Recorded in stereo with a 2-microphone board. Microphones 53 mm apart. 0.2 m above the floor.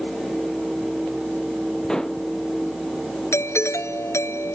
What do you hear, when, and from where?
1.9 s dishes clattering: 15° left (ahead or behind)
3.3 s a doorbell: 65° left (ahead or behind)